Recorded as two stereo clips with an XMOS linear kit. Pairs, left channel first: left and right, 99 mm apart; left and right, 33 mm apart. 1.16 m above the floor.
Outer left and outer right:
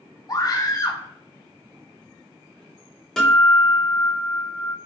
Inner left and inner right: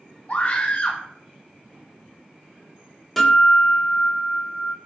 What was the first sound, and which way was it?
A scream, 40° left (ahead or behind).